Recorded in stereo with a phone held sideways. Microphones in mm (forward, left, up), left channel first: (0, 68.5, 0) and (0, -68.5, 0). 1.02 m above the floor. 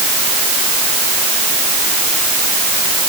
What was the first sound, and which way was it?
Only background noise.